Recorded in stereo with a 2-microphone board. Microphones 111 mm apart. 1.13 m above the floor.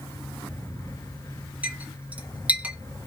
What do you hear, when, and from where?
1.6 s a clink: 15° right (ahead or behind), 0.6 m